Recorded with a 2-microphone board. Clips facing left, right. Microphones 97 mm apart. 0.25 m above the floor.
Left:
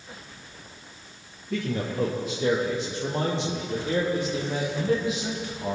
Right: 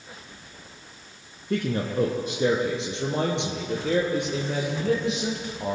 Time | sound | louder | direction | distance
1.5 | a man speaking | right 3 dB | 70° right (ahead or behind) | 3 m